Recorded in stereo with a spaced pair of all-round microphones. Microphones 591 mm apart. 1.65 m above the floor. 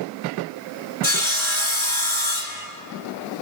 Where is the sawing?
50° left (ahead or behind), 2.5 m.